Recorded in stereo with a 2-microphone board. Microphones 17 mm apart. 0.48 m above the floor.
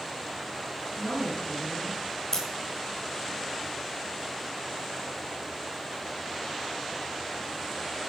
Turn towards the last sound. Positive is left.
turn(degrees=35)  # may be behind; listen again after turning